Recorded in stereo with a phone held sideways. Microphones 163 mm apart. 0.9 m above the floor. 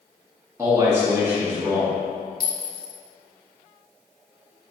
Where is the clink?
70° left (ahead or behind), 0.8 m.